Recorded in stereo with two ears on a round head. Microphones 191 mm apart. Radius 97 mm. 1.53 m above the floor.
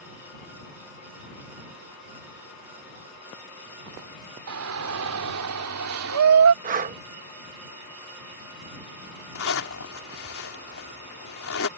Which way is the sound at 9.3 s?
75° left (ahead or behind).